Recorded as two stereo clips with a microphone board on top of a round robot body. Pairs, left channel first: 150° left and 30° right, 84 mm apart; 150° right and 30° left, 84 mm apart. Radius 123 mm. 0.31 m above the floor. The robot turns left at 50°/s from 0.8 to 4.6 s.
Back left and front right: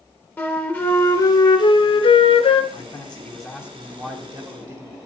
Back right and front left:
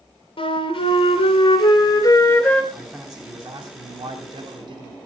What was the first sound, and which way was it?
A flute, 145° right.